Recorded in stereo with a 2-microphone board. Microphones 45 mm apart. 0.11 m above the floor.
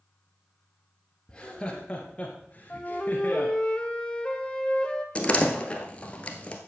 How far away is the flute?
About 1.0 m.